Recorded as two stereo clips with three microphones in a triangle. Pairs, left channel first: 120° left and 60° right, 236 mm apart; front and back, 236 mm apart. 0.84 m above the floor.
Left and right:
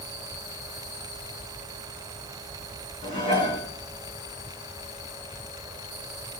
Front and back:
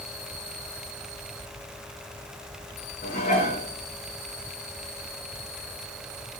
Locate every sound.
3.0 s dishes clattering: 60° left, 7.5 m